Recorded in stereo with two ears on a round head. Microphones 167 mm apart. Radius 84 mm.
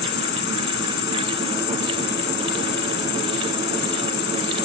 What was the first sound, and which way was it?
An insect, 65° left (ahead or behind).